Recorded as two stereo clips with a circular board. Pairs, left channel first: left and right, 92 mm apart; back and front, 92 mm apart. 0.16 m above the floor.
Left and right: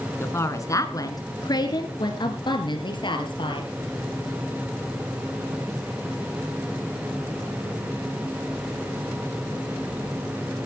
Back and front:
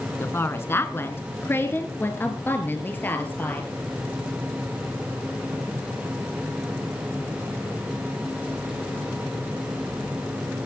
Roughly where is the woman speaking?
Behind left.